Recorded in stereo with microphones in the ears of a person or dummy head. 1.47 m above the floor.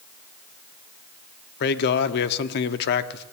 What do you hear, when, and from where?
1.6 s a man speaking: 55° left (ahead or behind), 0.8 m